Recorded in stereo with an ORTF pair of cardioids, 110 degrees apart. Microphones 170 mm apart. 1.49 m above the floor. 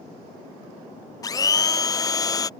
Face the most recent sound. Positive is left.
turn(degrees=20)